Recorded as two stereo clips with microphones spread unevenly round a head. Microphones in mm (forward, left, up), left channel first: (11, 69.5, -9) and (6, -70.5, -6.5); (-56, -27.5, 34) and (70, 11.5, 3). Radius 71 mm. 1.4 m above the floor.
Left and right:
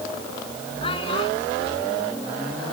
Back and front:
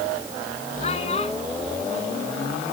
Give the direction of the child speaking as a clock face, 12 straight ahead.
7 o'clock.